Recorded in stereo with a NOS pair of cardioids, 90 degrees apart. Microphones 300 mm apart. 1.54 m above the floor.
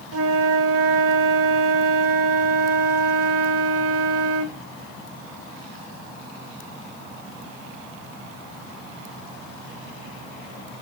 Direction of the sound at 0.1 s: 50° right.